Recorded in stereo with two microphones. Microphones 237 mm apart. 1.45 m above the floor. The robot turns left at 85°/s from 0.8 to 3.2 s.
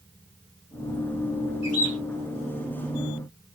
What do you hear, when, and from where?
1.6 s a bird: 105° left, 3 m; by 2.0 s 75° left, 3 m